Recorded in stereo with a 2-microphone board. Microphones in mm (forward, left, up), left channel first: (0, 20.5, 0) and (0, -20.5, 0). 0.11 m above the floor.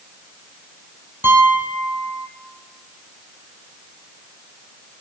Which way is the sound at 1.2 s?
65° right (ahead or behind).